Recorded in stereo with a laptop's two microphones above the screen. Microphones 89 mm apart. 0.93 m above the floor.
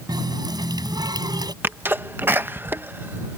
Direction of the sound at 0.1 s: 50° right (ahead or behind).